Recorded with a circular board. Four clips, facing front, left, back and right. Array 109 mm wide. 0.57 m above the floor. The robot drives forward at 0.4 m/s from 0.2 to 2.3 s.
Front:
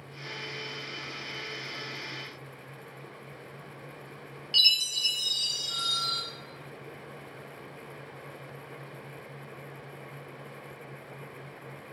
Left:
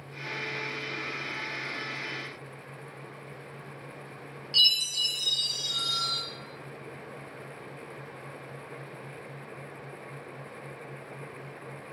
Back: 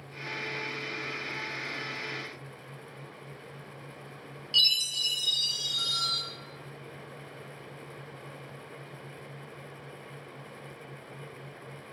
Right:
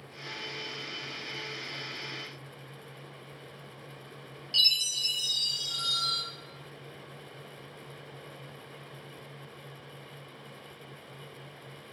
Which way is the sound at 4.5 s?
5° right.